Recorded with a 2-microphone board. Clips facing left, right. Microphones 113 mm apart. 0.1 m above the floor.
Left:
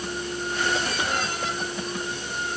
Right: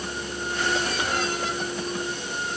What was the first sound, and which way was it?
Only background noise.